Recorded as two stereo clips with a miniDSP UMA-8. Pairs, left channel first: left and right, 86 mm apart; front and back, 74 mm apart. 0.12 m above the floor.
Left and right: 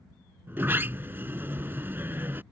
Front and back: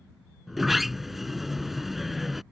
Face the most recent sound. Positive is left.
turn(degrees=-95)